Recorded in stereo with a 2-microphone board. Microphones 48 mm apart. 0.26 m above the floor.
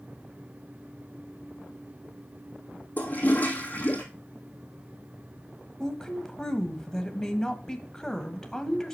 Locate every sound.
3.0 s a toilet flushing: 35° left (ahead or behind), 1.7 m
5.8 s a woman speaking: 10° left (ahead or behind), 1.1 m